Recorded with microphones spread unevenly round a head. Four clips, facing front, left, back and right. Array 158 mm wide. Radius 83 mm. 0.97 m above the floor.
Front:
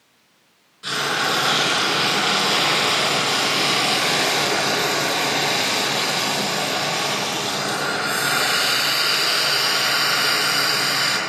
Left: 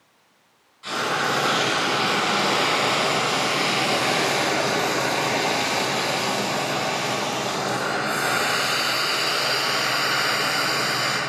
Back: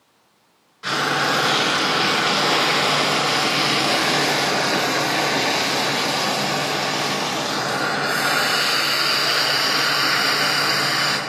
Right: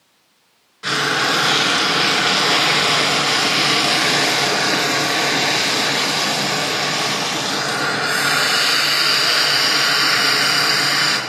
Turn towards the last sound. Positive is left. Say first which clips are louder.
# right 4 dB, back 2 dB
turn(degrees=-95)